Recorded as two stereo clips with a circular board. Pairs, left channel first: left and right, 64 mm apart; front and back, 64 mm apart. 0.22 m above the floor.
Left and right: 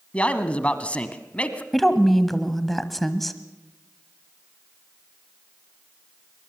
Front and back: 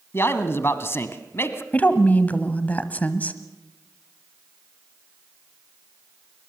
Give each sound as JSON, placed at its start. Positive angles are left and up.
{"t": 0.1, "sound": "a man speaking", "azimuth_deg": 30, "distance_m": 1.2}
{"t": 1.7, "sound": "a woman speaking", "azimuth_deg": 5, "distance_m": 1.0}